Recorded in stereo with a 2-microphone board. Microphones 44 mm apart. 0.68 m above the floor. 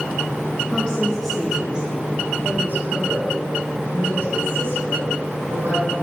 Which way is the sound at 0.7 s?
20° left (ahead or behind).